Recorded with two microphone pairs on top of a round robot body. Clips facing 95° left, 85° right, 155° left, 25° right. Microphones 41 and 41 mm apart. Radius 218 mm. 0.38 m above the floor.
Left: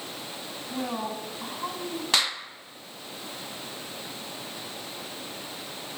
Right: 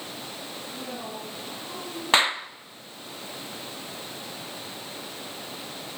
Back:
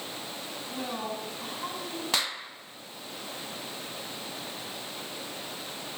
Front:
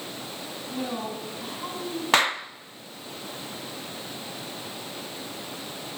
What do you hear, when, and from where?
0.7 s a woman speaking: 65° left, 5.5 m
2.1 s a clap: 50° right, 1.0 m